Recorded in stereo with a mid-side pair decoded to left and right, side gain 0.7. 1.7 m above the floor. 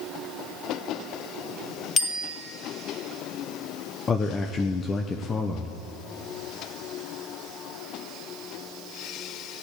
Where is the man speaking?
25° left, 1.0 m.